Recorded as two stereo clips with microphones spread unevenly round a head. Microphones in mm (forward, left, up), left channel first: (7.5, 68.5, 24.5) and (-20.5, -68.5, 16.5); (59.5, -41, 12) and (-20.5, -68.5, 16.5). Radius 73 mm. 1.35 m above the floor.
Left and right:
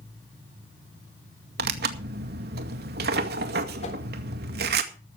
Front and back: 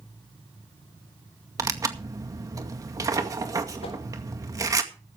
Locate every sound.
1.6 s tearing paper: 110° right, 2 m
3.8 s a whoosh: 30° left, 3.5 m